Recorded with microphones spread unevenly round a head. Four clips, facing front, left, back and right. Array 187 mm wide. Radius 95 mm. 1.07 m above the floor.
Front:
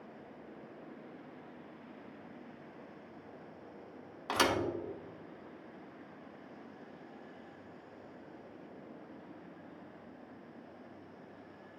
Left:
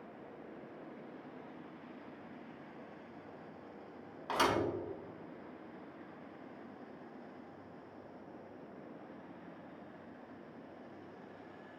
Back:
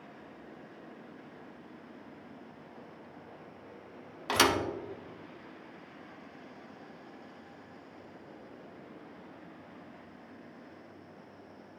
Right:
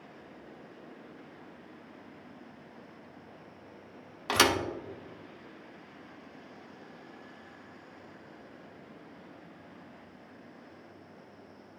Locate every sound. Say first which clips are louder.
4.3 s a thud: right 5 dB, back 4 dB; 140° right, 1.0 m